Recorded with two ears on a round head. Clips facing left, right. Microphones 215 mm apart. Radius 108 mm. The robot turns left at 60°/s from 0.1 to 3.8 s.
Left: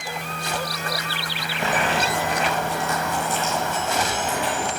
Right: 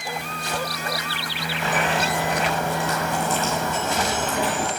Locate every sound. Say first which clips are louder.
1.6 s boiling: left 1 dB; 25° left, 9.5 m; by 4.7 s 105° right, 9.5 m